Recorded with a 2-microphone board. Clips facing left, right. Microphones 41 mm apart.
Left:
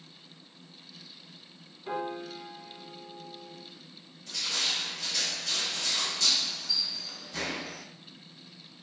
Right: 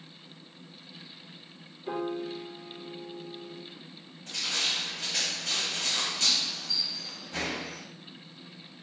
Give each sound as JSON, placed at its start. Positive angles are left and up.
{"t": 1.9, "sound": "a piano", "side_deg": 20, "distance_m": 1.3}
{"t": 4.3, "sound": "crushing", "side_deg": -40, "distance_m": 1.0}